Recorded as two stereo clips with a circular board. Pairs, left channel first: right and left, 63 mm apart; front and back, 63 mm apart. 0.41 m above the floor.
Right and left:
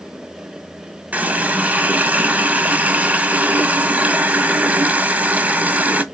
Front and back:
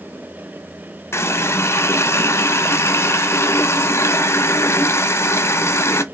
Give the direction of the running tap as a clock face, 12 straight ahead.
11 o'clock.